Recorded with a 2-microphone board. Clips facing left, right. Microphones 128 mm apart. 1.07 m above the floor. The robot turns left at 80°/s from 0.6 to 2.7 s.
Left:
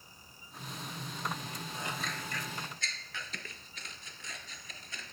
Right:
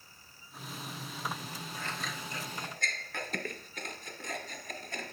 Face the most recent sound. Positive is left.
turn(degrees=-55)  # may be behind; listen again after turning